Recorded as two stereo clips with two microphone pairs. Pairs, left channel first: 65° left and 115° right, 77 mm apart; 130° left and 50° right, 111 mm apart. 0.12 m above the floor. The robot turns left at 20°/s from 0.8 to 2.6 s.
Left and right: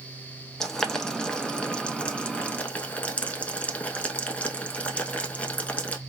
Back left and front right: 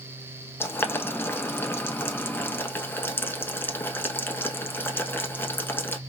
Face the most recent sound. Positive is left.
turn(degrees=105)